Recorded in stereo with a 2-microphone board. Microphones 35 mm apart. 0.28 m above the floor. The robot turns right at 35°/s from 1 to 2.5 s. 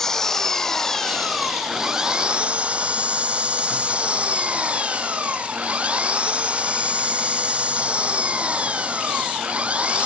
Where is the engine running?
165° left; by 10.1 s 140° right.